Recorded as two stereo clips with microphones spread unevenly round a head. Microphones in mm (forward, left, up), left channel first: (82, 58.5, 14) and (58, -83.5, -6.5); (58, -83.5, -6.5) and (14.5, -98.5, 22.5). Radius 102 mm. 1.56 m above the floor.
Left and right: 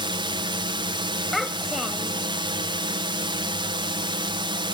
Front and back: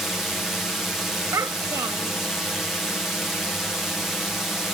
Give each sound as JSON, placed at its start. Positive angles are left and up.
{"t": 0.0, "sound": "a drone", "azimuth_deg": -55}
{"t": 1.3, "sound": "a child speaking", "azimuth_deg": 170}